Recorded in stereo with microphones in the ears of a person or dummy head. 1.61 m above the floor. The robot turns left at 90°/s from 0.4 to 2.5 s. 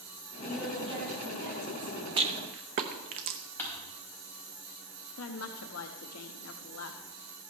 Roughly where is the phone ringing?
No phone ringing in this recording.